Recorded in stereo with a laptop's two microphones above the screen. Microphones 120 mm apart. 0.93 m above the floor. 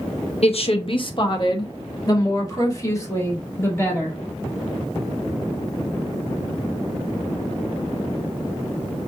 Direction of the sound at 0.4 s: 60° left (ahead or behind).